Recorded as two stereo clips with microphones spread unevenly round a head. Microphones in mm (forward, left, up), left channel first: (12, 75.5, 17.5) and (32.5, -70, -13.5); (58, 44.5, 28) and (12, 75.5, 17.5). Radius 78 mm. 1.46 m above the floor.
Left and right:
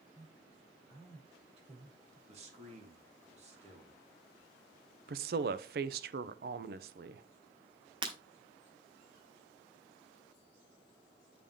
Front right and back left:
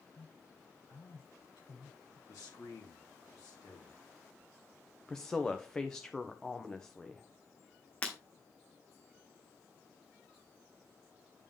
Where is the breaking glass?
30° right, 1.2 m.